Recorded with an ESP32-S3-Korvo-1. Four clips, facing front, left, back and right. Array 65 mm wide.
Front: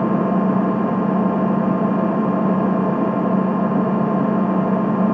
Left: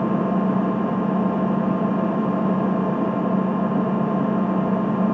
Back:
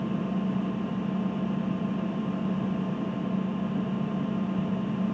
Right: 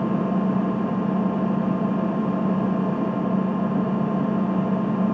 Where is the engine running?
15° left.